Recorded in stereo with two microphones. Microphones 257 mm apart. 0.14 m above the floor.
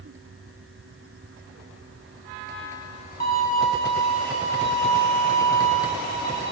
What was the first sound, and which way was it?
A violin, 60° right (ahead or behind).